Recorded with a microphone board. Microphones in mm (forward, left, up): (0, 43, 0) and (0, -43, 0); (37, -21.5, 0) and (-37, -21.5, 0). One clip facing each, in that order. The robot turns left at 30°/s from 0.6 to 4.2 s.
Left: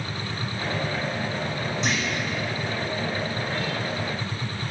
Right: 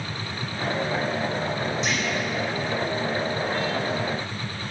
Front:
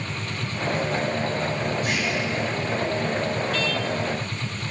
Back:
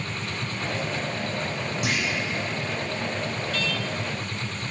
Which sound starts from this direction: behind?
A clunk, at 1.8 s.